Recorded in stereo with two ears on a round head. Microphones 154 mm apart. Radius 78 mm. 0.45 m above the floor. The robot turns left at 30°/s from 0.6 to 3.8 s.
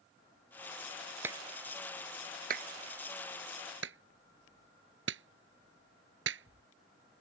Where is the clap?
15° right (ahead or behind); by 7.2 s 85° right.